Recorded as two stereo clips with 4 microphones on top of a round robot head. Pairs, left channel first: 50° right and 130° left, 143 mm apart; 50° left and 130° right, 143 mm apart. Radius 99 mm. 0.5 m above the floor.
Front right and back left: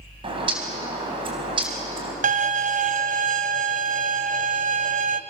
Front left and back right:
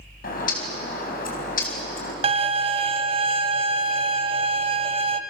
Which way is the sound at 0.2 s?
75° left.